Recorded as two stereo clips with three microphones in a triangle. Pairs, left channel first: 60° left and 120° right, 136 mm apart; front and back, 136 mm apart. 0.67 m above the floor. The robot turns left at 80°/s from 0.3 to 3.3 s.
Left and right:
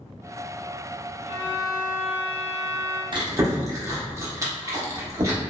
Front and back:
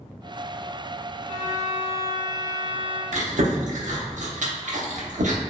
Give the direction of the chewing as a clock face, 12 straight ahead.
6 o'clock.